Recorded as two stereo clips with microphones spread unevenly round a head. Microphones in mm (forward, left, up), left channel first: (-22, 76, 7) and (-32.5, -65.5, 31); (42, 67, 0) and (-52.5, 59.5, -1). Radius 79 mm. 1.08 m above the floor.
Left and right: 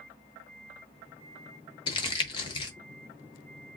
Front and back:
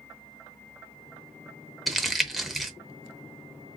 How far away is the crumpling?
About 0.8 m.